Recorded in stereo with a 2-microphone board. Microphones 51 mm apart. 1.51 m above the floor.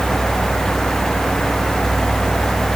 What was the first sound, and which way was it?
Only background noise.